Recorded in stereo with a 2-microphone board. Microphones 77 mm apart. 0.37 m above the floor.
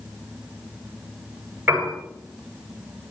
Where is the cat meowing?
No cat meowing in this recording.